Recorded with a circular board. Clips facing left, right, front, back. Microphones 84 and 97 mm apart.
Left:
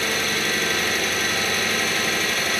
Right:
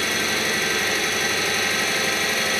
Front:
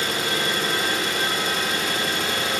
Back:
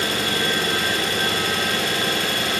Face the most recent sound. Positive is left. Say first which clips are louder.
# even, back 2 dB
turn(degrees=-175)